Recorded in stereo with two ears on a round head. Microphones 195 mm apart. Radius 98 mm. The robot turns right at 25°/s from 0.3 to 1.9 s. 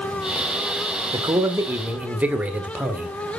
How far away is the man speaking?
About 1.6 m.